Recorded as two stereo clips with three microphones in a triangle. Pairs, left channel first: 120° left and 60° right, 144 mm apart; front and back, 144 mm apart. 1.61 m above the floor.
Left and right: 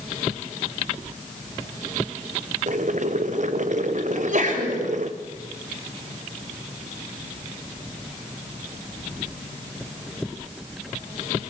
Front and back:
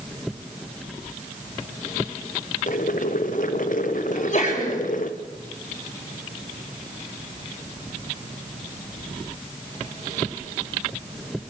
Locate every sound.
2.7 s boiling: 25° right, 1.2 m
4.1 s a sneeze: 35° right, 5.5 m